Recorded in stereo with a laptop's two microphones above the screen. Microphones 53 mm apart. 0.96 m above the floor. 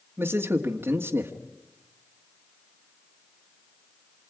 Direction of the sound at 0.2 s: 45° right (ahead or behind).